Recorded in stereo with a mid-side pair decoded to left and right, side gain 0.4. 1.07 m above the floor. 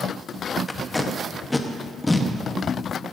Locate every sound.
0.7 s tape being pulled: 15° left, 1.2 m